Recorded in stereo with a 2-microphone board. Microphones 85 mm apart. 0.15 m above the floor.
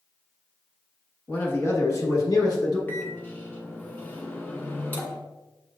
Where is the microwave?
25° left (ahead or behind), 0.9 m.